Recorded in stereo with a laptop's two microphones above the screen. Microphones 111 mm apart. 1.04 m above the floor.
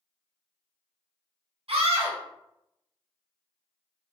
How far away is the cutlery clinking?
I don't hear cutlery clinking.